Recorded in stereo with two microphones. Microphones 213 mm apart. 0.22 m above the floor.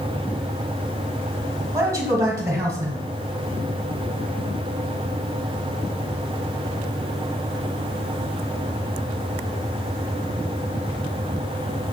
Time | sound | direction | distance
1.7 | a man speaking | 15° right (ahead or behind) | 1.2 m